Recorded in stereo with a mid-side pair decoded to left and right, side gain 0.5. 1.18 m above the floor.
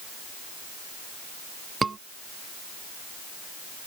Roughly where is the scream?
Ahead right.